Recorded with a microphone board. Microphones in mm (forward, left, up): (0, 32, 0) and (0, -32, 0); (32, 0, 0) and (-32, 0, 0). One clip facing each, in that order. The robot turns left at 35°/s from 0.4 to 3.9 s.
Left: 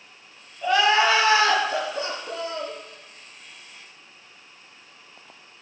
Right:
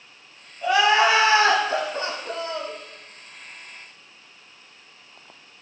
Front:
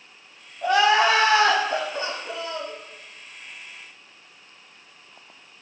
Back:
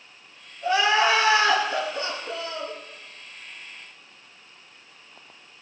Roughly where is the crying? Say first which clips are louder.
Right 1 dB, front 2 dB; ahead.